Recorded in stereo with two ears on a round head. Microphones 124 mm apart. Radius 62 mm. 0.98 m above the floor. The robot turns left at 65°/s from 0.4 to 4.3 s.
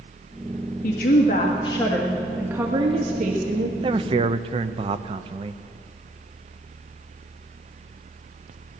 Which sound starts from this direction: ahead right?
A man speaking, at 3.8 s.